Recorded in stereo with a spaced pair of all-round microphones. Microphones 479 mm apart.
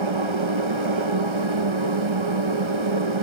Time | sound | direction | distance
0.0 | a machine running | 65° right (ahead or behind) | 1.3 m